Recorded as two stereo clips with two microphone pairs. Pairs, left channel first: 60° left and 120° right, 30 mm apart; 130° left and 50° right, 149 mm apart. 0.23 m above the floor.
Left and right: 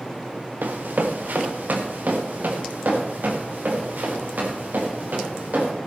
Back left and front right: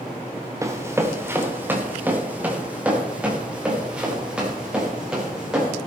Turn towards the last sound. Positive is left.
turn(degrees=-135)